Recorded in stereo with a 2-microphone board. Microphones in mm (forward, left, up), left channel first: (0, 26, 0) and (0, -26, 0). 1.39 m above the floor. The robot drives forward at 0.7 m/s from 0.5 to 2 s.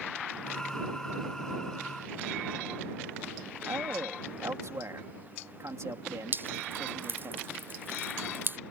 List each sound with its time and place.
3.6 s a man speaking: 75° right (ahead or behind)
6.3 s dripping: 45° right (ahead or behind)